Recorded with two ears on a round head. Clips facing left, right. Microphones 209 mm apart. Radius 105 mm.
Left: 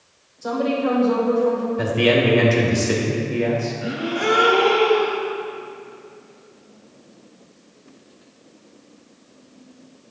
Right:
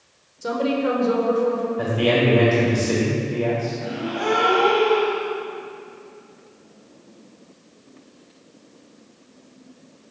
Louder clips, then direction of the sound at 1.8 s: Left 2 dB; 30° left (ahead or behind).